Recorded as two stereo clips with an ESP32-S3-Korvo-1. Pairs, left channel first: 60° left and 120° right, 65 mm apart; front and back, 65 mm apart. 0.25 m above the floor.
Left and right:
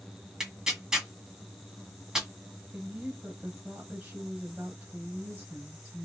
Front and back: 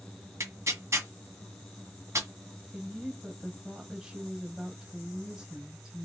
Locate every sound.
0.4 s tearing paper: 165° left, 1.8 m
2.7 s a woman speaking: 115° right, 1.4 m